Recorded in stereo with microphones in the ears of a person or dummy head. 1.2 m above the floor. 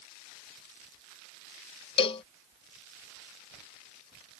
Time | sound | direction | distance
2.0 | a cowbell | 30° left (ahead or behind) | ?